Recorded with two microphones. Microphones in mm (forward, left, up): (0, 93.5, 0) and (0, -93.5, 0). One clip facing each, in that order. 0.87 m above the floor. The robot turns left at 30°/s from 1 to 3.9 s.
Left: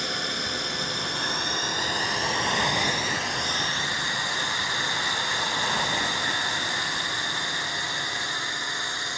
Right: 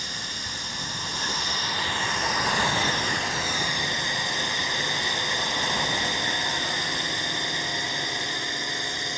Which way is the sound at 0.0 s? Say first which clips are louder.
Left 8 dB; 65° left.